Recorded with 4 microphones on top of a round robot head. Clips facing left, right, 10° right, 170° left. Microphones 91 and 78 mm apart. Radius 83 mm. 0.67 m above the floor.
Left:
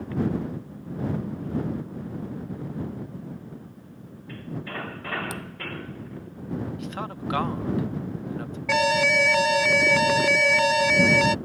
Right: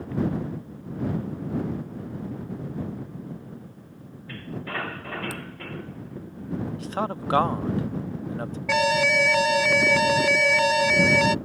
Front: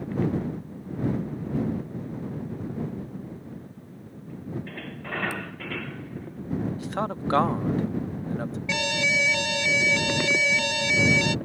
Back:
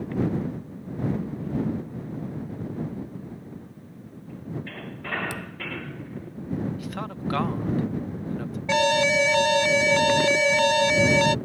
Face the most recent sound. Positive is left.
turn(degrees=180)